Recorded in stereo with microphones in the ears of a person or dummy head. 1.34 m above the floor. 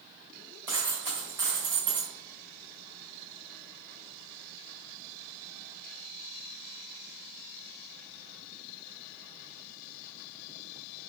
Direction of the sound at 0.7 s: 20° right (ahead or behind).